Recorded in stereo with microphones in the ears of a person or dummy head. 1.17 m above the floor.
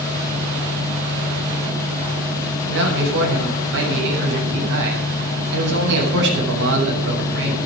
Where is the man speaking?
65° right (ahead or behind), 8.5 m.